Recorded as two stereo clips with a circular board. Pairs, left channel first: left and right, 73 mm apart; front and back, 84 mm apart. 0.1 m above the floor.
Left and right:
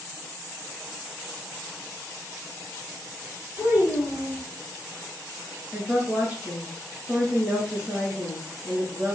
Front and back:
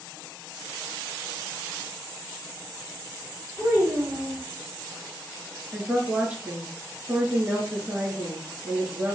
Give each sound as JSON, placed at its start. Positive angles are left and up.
{"t": 3.6, "sound": "a child speaking", "azimuth_deg": -35, "distance_m": 1.9}
{"t": 5.7, "sound": "a woman speaking", "azimuth_deg": -130, "distance_m": 1.6}